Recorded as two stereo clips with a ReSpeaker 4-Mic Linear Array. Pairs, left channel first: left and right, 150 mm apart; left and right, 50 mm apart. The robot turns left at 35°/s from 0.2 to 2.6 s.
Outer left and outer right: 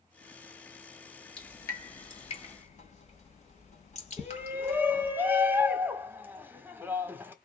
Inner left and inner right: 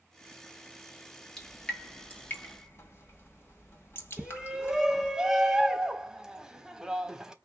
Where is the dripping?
5° left (ahead or behind), 1.7 m; by 5.1 s 50° left (ahead or behind), 1.7 m.